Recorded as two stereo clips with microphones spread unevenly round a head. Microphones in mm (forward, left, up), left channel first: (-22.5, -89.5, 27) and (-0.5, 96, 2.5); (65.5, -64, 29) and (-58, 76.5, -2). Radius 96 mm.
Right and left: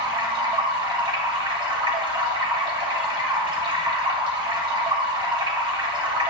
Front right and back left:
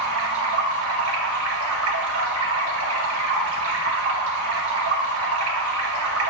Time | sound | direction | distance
0.0 | running water | 150° left | 2.0 m